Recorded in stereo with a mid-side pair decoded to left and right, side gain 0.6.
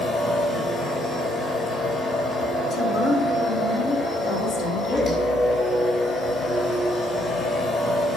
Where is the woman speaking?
60° left, 3.5 m.